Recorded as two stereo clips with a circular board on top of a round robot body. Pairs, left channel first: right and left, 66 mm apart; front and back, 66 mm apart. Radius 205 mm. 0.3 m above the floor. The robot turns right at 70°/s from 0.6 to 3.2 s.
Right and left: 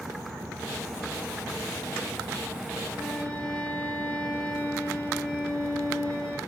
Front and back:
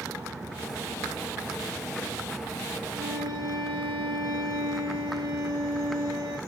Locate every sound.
2.9 s a violin: 175° left, 6 m; by 6.4 s 165° right, 6 m